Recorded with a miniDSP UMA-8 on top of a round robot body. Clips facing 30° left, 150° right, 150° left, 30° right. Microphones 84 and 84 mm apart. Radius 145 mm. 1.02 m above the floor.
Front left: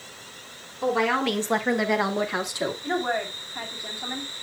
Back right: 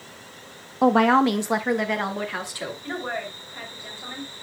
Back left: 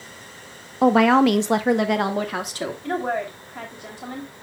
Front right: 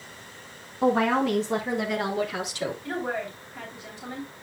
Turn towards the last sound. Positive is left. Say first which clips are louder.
# front left 3 dB, back left 5 dB
turn(degrees=105)